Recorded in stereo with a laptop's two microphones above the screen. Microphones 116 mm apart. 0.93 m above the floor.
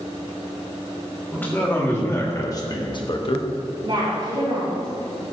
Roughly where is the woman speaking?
Right.